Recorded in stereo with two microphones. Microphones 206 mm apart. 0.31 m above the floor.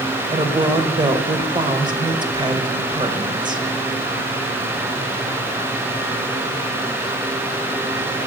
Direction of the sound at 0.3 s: 20° right (ahead or behind).